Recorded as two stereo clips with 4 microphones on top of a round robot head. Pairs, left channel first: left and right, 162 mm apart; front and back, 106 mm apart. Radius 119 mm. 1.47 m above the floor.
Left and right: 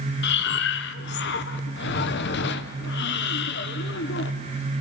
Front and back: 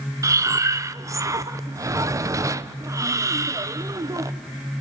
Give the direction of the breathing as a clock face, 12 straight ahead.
8 o'clock.